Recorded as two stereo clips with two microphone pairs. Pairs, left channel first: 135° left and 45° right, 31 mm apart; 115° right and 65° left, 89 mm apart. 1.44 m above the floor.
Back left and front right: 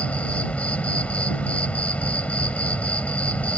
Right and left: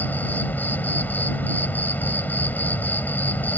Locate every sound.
0.0 s an insect: 175° left